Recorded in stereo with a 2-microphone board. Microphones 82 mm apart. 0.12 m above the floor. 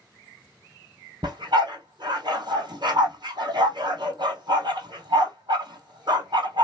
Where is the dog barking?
65° right (ahead or behind), 0.9 m.